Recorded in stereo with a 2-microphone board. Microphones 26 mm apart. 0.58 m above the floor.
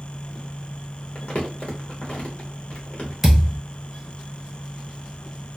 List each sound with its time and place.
1.1 s crumpling: 50° left (ahead or behind), 0.9 m
3.2 s a thud: 5° right (ahead or behind), 1.4 m